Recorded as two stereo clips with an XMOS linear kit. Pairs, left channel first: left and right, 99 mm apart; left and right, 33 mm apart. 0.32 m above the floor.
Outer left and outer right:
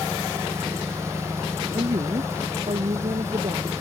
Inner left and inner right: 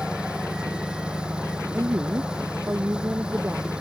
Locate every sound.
0.0 s an engine running: 30° right (ahead or behind)
1.7 s a woman speaking: 80° right